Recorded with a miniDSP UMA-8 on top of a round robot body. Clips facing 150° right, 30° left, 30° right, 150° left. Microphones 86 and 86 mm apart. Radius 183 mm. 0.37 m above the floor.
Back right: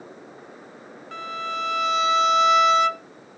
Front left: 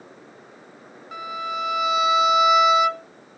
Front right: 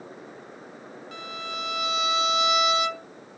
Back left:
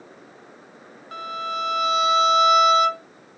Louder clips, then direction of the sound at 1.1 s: Front left 1 dB, back left 8 dB; 110° left.